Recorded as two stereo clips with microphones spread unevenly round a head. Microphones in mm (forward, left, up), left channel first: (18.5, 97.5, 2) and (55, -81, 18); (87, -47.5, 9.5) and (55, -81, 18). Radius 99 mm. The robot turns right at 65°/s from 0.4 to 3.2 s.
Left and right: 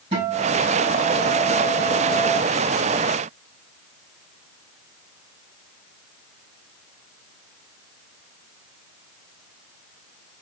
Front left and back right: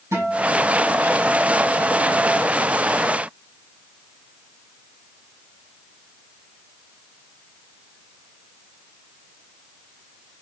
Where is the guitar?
140° right, 5 m; by 2.4 s 10° right, 5 m.